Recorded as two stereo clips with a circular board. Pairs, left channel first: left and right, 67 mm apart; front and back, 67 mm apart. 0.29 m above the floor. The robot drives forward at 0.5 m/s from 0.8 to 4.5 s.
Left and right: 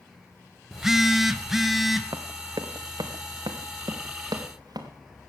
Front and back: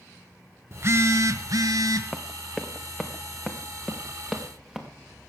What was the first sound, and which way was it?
A phone buzzing, 170° right.